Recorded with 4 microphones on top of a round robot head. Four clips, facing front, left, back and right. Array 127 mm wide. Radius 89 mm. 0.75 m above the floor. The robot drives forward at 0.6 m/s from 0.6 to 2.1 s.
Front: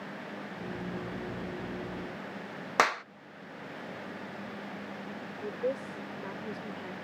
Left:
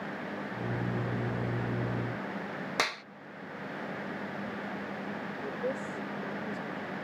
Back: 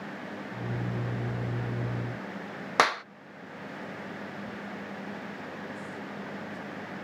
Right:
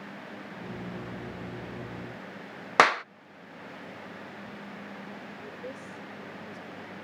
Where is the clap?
95° right.